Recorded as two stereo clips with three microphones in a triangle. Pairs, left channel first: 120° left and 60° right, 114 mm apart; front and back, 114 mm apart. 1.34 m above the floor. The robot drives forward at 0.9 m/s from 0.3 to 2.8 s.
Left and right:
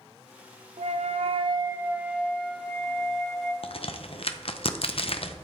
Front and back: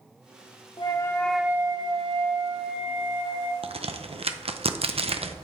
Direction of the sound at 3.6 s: 150° left.